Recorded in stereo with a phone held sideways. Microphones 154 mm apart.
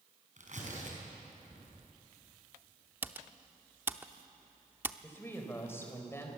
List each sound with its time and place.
0.4 s tearing paper: 55° right (ahead or behind), 5.5 m
3.0 s typing on a keyboard: 15° right (ahead or behind), 0.7 m
5.0 s a woman speaking: 15° left (ahead or behind), 4 m